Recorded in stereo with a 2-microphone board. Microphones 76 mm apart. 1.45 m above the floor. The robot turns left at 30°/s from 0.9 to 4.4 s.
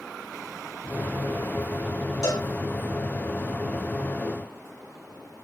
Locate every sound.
2.2 s a cowbell: 65° left (ahead or behind), 3.5 m; by 2.5 s 70° left (ahead or behind), 3.5 m